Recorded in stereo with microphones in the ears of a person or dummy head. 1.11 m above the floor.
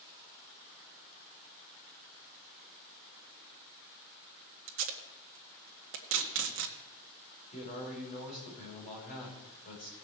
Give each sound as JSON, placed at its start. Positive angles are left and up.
{"t": 4.7, "sound": "tape being pulled", "side_deg": -65, "distance_m": 1.7}
{"t": 7.5, "sound": "a man speaking", "side_deg": 40, "distance_m": 6.0}